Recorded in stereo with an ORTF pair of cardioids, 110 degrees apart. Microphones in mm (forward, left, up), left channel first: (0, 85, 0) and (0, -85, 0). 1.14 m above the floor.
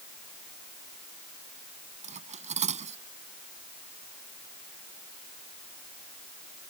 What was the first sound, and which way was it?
Cutlery clinking, 45° right.